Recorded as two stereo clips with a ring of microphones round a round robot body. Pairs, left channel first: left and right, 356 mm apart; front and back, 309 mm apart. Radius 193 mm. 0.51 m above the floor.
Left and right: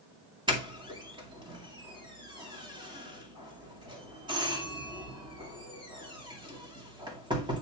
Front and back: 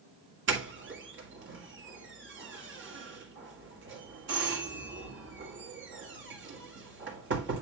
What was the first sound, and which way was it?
A doorbell, 160° right.